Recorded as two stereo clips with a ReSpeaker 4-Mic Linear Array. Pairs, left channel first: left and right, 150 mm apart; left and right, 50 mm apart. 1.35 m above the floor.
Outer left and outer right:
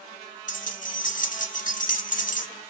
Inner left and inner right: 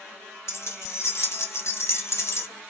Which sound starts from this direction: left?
Keys jangling, at 0.5 s.